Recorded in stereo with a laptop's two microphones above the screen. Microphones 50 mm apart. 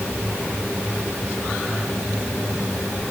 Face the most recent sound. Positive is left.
No sound to turn to.